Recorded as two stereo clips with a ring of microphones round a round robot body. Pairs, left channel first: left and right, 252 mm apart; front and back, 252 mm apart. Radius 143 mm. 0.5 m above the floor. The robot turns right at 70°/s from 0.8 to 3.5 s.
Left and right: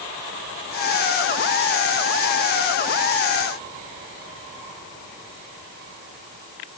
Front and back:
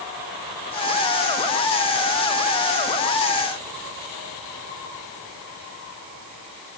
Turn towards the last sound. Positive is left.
No sound to turn to.